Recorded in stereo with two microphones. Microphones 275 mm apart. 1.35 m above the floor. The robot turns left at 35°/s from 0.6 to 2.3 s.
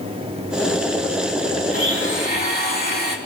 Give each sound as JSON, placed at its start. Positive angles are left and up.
{"t": 1.7, "sound": "a blender", "side_deg": 55, "distance_m": 2.5}